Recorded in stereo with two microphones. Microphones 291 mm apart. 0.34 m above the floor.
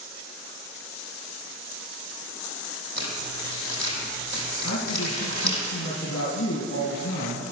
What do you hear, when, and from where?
3.0 s crumpling: 65° right (ahead or behind), 4 m
4.6 s a man speaking: 60° left (ahead or behind), 2.5 m